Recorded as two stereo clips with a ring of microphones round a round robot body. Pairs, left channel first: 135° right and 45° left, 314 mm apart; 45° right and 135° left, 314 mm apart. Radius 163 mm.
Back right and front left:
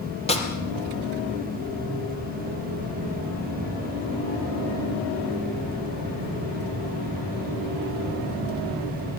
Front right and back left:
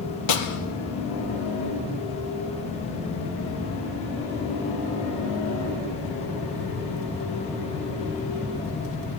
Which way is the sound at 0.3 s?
65° right.